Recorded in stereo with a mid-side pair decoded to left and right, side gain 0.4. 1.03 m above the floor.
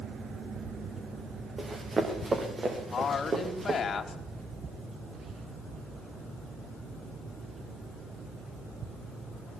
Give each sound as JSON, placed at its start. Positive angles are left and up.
{"t": 1.6, "sound": "running footsteps", "azimuth_deg": -35, "distance_m": 8.0}
{"t": 2.9, "sound": "a woman speaking", "azimuth_deg": 50, "distance_m": 5.0}